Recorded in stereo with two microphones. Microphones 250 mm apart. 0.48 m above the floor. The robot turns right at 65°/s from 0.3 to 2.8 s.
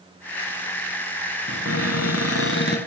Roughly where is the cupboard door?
Ahead left.